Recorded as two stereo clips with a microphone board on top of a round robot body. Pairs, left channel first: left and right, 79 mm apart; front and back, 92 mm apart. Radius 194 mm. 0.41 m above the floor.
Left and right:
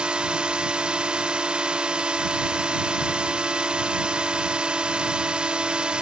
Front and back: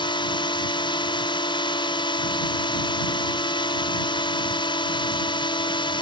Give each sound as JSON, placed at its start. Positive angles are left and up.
{"t": 0.0, "sound": "a drone", "azimuth_deg": -15}